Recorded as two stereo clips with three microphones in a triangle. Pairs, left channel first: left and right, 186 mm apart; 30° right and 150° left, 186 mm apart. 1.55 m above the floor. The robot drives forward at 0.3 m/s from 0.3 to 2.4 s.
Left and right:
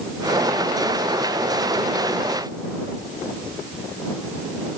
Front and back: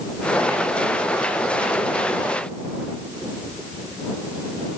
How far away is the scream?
I don't hear a scream.